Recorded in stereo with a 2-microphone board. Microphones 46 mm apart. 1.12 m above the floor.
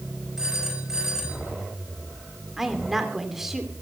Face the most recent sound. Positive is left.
turn(degrees=-10)  # may be behind; listen again after turning